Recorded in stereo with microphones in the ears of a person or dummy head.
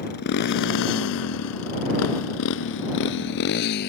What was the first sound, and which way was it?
A motorcycle, 55° left (ahead or behind).